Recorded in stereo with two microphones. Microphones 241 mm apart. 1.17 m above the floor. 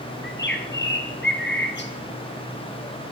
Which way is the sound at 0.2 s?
50° left (ahead or behind).